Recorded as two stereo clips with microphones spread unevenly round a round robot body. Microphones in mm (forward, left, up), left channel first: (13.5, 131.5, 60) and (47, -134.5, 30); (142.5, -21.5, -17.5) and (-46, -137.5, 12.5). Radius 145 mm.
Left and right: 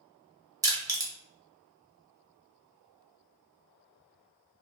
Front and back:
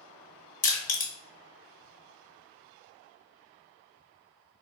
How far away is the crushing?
About 0.8 m.